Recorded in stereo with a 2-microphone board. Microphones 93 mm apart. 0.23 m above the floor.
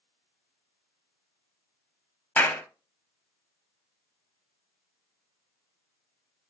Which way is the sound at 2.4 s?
20° left (ahead or behind).